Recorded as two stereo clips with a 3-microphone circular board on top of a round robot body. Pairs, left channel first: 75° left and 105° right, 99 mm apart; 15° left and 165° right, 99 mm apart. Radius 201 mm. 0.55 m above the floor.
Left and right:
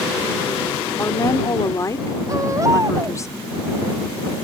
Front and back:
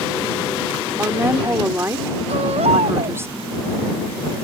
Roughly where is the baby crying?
Behind.